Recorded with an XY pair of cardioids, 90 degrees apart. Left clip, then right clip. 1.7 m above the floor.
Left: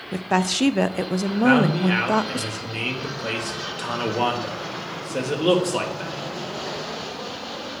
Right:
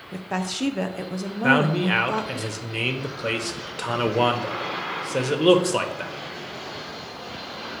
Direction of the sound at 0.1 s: 50° left.